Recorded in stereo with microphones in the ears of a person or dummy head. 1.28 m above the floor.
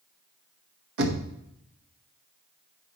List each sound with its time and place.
1.0 s knocking: 65° right (ahead or behind), 1.0 m